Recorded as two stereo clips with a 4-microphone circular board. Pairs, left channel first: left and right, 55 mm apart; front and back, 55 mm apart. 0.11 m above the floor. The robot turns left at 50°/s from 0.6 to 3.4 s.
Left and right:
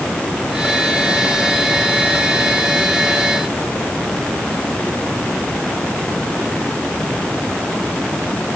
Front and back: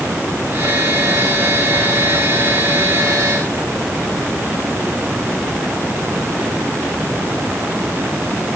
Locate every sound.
Only background noise.